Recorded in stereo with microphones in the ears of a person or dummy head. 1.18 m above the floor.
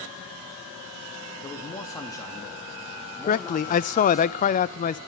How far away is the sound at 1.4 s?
About 2 m.